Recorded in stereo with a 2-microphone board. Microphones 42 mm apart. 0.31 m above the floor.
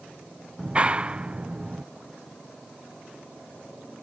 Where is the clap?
25° right (ahead or behind).